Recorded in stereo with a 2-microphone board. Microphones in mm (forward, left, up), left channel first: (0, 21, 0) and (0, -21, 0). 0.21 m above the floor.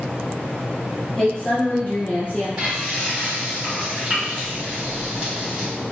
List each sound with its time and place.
1.2 s a woman speaking: 10° left (ahead or behind), 1.1 m; by 2.5 s 55° left (ahead or behind), 1.6 m
2.6 s frying: 15° right (ahead or behind), 1.7 m